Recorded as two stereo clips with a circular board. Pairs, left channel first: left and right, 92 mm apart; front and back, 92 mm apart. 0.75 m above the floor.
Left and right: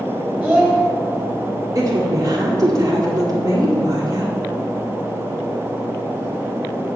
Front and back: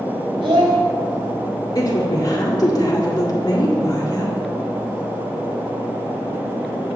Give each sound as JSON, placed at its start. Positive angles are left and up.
{"t": 0.4, "sound": "a child speaking", "azimuth_deg": -165, "distance_m": 2.5}
{"t": 1.8, "sound": "a woman speaking", "azimuth_deg": -45, "distance_m": 1.7}